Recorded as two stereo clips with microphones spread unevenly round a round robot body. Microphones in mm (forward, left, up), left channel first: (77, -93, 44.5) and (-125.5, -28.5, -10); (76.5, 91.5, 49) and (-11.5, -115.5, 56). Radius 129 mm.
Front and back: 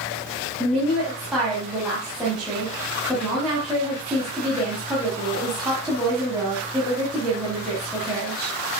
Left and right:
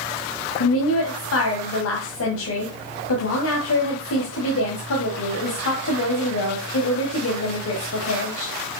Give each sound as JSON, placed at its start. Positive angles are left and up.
{"t": 0.6, "sound": "a woman speaking", "azimuth_deg": 80, "distance_m": 2.0}